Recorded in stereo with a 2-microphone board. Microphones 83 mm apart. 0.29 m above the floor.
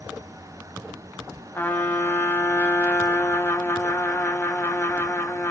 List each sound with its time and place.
1.6 s a trumpet: 25° left (ahead or behind), 1.0 m